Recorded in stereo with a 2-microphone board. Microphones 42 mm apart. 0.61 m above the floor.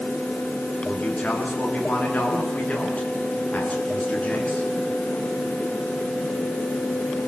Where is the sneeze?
I don't hear a sneeze.